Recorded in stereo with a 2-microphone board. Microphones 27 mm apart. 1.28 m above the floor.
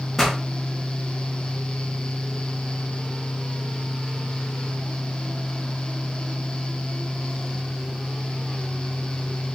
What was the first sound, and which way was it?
A pop, 5° left (ahead or behind).